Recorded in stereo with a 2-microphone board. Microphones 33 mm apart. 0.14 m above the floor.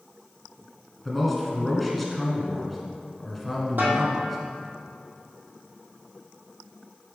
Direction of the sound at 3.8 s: 75° right (ahead or behind).